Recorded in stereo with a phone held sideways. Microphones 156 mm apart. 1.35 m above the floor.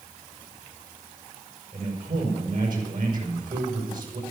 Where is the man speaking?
80° right, 5 m.